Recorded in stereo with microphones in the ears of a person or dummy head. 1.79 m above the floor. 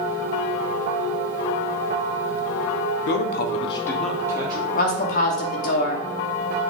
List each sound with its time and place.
3.1 s a man speaking: 65° left (ahead or behind), 0.7 m; by 4.7 s 20° right (ahead or behind), 0.8 m
4.8 s a woman speaking: 40° left (ahead or behind), 0.8 m